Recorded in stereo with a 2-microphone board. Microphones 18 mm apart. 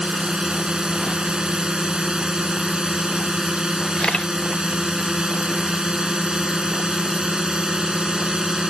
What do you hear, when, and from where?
0.0 s a drone: 50° right (ahead or behind)
4.0 s a camera shutter: 80° left